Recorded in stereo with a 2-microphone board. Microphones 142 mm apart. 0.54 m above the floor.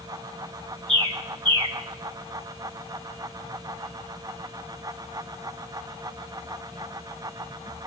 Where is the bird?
35° right (ahead or behind), 1.4 m.